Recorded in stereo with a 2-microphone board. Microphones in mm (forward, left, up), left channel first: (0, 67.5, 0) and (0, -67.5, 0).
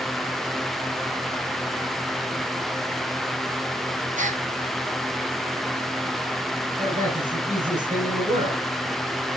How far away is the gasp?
About 0.9 m.